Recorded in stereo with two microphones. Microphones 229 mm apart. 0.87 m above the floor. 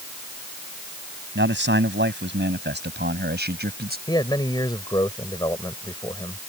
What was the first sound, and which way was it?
A man speaking, 50° right (ahead or behind).